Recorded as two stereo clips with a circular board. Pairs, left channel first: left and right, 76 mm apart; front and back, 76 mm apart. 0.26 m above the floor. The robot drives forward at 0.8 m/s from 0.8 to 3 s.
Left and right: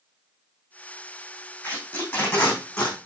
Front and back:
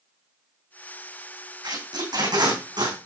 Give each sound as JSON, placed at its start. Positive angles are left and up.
{"t": 1.6, "sound": "tape being pulled", "azimuth_deg": 160, "distance_m": 3.5}